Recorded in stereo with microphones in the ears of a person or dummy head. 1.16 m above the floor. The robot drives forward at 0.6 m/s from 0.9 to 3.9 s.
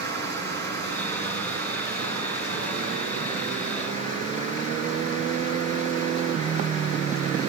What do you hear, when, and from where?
0.0 s running water: 65° right (ahead or behind), 4.5 m; by 7.5 s 45° right (ahead or behind), 5.5 m